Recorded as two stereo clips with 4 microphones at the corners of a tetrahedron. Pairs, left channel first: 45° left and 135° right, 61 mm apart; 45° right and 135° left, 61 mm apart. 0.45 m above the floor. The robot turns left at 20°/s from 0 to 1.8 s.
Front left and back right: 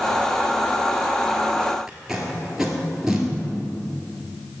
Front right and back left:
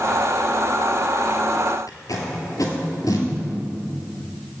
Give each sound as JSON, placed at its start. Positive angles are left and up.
{"t": 1.9, "sound": "tape being pulled", "azimuth_deg": -55, "distance_m": 1.2}